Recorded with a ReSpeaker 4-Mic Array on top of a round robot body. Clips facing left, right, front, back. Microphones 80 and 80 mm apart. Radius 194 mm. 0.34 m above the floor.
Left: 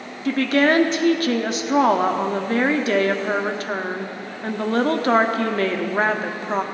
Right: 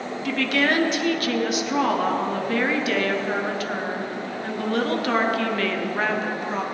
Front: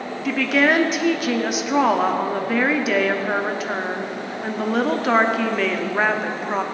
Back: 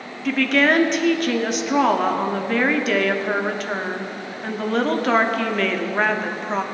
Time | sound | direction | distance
0.2 | a woman speaking | 80° left | 1.4 m